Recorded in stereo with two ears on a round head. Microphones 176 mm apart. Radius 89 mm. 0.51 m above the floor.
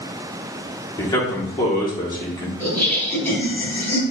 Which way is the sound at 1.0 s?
20° left (ahead or behind).